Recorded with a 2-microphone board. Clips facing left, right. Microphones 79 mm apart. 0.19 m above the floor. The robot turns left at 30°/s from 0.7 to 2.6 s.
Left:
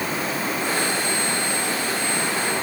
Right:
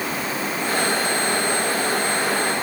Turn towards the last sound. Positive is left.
No sound to turn to.